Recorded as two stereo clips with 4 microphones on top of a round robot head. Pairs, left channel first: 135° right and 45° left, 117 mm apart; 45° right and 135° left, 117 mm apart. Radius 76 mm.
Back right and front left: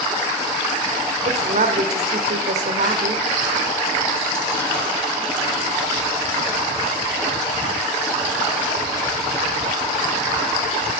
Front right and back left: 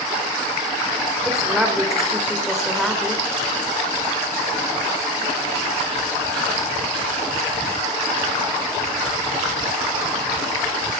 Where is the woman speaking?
50° left, 2.0 m.